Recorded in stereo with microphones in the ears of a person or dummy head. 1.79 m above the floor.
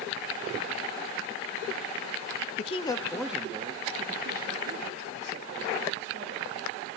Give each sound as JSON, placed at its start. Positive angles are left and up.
{"t": 2.6, "sound": "a man speaking", "side_deg": 40, "distance_m": 0.9}